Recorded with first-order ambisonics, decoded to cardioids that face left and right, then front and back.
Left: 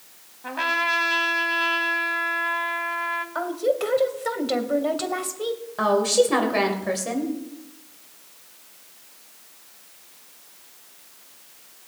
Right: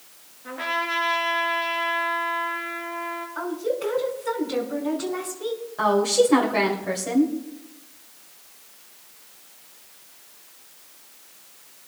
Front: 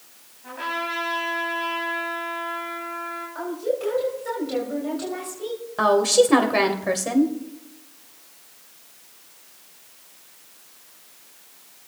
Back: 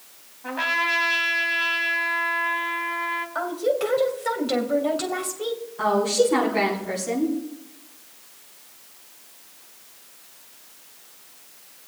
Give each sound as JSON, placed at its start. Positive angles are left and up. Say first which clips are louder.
{"t": 0.4, "sound": "a trumpet", "louder": "left 3 dB, back 5 dB", "azimuth_deg": 120, "distance_m": 2.0}
{"t": 3.4, "sound": "a woman speaking", "louder": "left 3 dB, back 2 dB", "azimuth_deg": 120, "distance_m": 2.5}
{"t": 5.8, "sound": "a woman speaking", "louder": "even, front 3 dB", "azimuth_deg": 20, "distance_m": 2.5}